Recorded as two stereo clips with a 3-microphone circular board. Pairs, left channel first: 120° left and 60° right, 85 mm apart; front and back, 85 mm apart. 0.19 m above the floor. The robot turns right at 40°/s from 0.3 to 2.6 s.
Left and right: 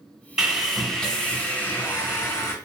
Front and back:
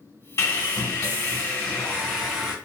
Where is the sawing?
20° left, 1.5 m; by 2.5 s 105° left, 1.5 m.